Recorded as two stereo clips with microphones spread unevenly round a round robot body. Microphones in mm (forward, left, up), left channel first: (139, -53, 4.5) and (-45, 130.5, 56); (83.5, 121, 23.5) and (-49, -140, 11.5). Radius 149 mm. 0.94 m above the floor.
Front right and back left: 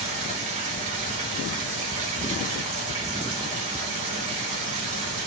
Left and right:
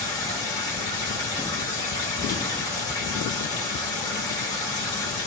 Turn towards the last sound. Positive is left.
turn(degrees=140)